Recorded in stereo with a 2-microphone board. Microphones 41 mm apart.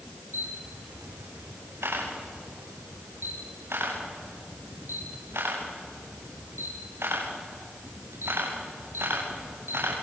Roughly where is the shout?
I don't hear a shout.